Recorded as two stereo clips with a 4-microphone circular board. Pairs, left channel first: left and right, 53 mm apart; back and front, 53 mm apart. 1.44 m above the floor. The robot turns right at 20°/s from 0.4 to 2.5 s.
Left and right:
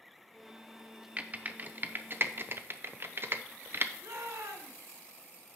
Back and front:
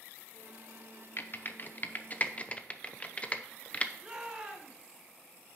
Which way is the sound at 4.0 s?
70° right.